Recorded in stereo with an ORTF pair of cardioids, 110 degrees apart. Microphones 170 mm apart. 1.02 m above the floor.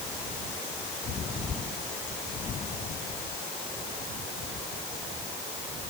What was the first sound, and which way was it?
Only background noise.